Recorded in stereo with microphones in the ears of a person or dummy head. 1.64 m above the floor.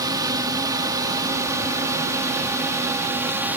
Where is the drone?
15° right (ahead or behind); by 3.6 s 10° right (ahead or behind).